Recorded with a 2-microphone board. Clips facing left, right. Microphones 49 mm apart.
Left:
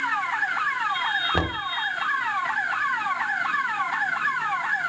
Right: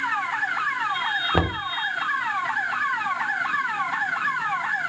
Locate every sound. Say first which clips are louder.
1.3 s knocking: right 2 dB; 15° right (ahead or behind), 0.9 m